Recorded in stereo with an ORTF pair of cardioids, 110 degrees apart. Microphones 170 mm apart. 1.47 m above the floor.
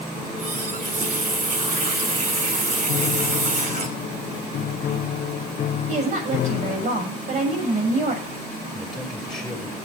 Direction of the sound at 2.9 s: 55° left.